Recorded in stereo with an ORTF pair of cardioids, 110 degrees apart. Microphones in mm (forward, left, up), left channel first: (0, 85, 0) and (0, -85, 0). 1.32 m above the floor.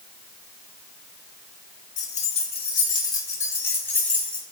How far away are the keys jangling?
About 1.5 m.